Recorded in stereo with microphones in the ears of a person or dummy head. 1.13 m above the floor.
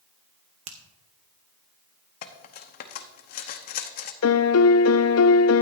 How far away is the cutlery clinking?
About 0.9 m.